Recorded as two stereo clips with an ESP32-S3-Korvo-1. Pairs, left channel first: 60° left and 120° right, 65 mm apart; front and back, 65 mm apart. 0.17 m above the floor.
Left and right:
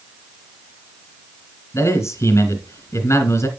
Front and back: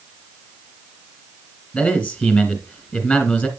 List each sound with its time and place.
1.7 s a man speaking: 60° left, 2.5 m